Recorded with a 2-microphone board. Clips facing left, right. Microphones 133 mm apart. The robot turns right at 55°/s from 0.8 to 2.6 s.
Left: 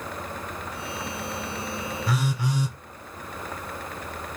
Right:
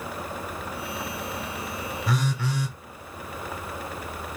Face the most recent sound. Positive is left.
turn(degrees=20)  # may be behind; listen again after turning